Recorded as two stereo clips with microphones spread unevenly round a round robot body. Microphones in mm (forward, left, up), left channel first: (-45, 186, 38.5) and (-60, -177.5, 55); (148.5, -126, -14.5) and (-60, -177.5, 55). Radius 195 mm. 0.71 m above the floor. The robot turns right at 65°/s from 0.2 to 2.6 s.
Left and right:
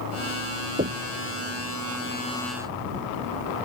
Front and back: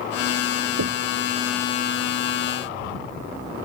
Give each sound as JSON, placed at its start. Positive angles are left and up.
{"t": 0.8, "sound": "knocking", "azimuth_deg": -160}